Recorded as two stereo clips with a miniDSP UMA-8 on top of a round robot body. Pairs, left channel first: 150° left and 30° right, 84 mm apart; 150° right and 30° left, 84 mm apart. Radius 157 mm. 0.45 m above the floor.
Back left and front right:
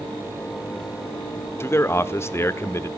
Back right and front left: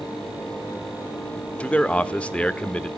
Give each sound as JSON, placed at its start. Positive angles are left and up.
{"t": 1.6, "sound": "a man speaking", "azimuth_deg": 150, "distance_m": 1.1}